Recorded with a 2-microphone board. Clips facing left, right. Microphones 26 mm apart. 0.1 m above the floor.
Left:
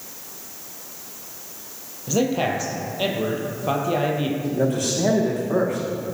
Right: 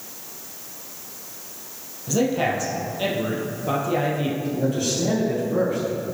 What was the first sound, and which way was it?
A man speaking, 15° left (ahead or behind).